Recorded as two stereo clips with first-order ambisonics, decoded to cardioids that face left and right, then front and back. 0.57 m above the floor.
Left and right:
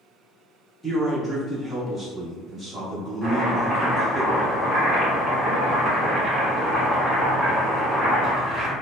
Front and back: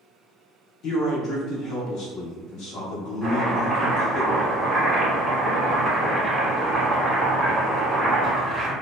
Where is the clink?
I don't hear a clink.